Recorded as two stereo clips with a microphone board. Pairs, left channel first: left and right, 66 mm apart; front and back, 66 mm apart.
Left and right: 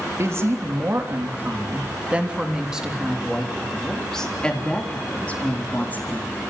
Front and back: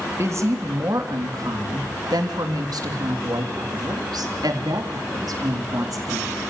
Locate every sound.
0.2 s a woman speaking: 135° right, 3.5 m; by 6.4 s 150° left, 4.5 m